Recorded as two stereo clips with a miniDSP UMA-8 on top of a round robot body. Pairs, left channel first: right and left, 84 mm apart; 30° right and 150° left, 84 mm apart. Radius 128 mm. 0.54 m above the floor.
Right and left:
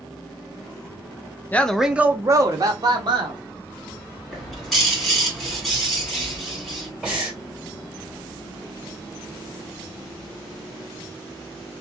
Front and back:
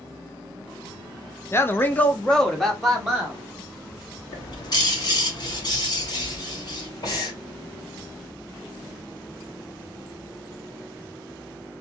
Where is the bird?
Straight ahead, 1.9 m.